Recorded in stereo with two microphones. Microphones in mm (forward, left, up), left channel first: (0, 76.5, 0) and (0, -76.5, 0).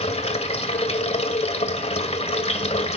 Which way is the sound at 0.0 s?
45° left (ahead or behind).